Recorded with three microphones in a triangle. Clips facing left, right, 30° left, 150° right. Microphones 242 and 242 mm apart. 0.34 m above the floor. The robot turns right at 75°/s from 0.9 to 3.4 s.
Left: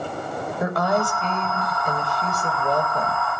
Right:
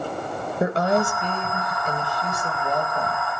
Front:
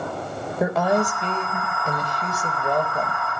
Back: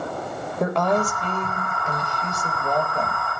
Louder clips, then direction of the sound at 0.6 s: Right 2 dB, front 1 dB; 50° right.